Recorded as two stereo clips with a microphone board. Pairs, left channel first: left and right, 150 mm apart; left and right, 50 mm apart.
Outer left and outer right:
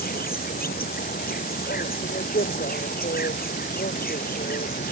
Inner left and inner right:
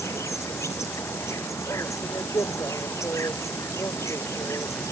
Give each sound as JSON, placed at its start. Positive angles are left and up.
{"t": 0.0, "sound": "an insect", "side_deg": 85}